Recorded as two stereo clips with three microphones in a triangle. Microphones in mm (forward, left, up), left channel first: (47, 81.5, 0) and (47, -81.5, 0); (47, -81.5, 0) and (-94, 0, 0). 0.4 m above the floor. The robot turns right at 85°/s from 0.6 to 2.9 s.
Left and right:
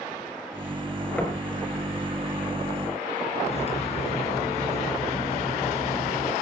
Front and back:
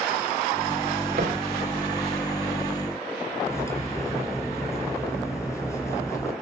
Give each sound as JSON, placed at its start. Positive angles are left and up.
{"t": 1.2, "sound": "knocking", "azimuth_deg": 170, "distance_m": 3.5}
{"t": 3.5, "sound": "cutlery clinking", "azimuth_deg": 40, "distance_m": 3.5}